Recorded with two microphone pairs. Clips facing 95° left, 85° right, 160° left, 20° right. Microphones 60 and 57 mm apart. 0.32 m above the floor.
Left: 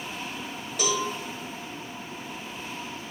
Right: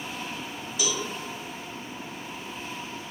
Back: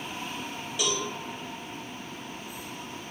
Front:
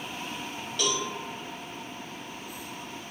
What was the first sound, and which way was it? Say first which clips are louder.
A cowbell: left 4 dB, front 1 dB; 80° left.